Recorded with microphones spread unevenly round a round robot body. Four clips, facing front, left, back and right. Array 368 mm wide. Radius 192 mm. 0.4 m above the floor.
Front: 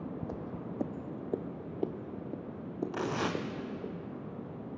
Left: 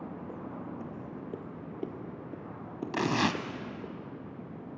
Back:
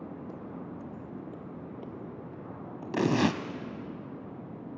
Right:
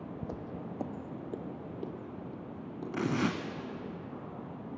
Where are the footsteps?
65° right, 0.8 m; by 3.9 s 30° left, 4 m.